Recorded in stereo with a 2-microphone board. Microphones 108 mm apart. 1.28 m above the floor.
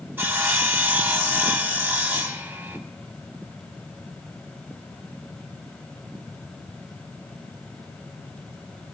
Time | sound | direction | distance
0.2 | sawing | 20° right (ahead or behind) | 0.9 m